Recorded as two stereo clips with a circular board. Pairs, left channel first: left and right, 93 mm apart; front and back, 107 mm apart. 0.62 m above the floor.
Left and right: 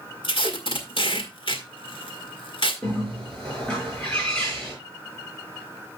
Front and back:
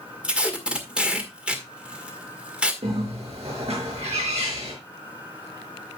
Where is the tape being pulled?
100° left, 1.7 m.